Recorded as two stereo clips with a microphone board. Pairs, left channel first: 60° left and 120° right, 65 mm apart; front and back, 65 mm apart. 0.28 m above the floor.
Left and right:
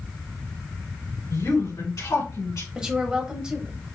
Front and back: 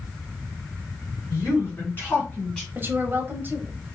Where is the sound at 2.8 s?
170° left, 1.0 m.